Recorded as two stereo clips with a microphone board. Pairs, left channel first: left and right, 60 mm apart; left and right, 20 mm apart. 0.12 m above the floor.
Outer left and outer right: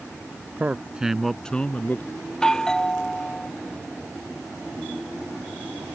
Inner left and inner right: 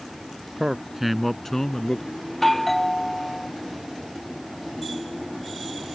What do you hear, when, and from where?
0.6 s a man speaking: 25° right (ahead or behind); by 2.1 s 30° left (ahead or behind)
2.3 s a doorbell: 10° left (ahead or behind)